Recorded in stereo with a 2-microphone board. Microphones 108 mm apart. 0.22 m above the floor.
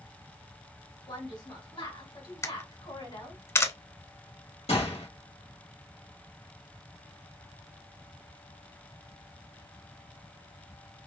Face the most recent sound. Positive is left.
turn(degrees=70)  # may be behind; listen again after turning